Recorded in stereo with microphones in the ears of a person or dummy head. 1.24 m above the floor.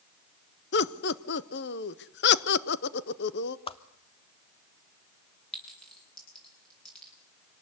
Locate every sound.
0.7 s laughter: 50° left (ahead or behind), 0.9 m
3.7 s a whoosh: 25° left (ahead or behind), 0.9 m
5.5 s a clink: 5° left (ahead or behind), 9 m